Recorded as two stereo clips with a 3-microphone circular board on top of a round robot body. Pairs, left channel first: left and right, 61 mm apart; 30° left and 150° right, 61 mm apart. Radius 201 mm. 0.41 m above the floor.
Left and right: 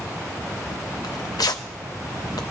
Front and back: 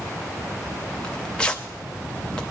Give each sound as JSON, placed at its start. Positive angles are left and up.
{"t": 1.0, "sound": "tearing paper", "azimuth_deg": 105, "distance_m": 0.5}